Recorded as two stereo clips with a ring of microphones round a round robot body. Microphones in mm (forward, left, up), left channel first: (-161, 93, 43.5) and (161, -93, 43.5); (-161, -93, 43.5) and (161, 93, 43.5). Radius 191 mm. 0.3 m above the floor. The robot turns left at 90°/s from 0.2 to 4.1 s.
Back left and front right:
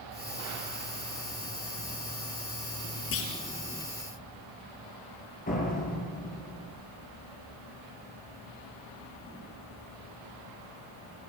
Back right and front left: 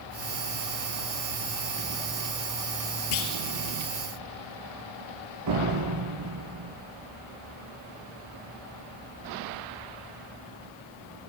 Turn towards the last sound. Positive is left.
turn(degrees=80)